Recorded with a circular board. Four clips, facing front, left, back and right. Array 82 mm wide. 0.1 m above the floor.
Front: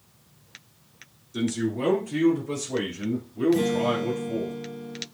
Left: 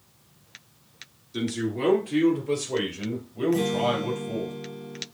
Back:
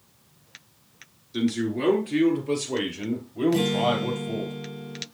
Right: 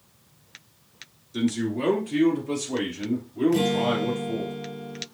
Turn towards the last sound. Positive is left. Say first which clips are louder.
# right 1 dB, even
turn(degrees=-145)